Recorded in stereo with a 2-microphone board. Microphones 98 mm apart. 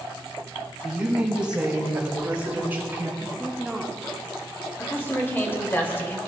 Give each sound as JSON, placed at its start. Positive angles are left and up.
{"t": 0.8, "sound": "a woman speaking", "side_deg": -10, "distance_m": 3.5}
{"t": 3.2, "sound": "a woman speaking", "side_deg": -10, "distance_m": 1.1}
{"t": 4.8, "sound": "a woman speaking", "side_deg": 25, "distance_m": 2.5}